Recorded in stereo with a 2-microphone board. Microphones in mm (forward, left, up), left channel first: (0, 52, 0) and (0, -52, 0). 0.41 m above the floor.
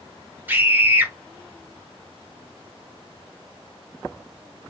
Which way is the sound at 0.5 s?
20° right (ahead or behind).